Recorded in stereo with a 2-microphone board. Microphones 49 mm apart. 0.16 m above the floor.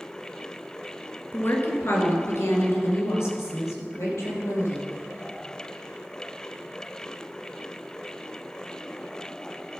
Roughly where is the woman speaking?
Left.